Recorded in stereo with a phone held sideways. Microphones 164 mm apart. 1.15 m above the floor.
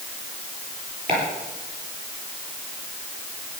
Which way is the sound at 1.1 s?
65° right (ahead or behind).